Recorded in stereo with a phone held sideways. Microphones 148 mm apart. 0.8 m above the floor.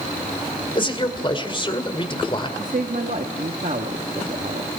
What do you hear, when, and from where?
0.8 s a man speaking: 35° left (ahead or behind), 2.5 m
2.6 s a man speaking: 65° right (ahead or behind), 1.3 m